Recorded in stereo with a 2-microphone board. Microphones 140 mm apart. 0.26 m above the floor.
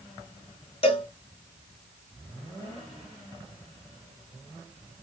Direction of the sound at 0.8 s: 45° left (ahead or behind).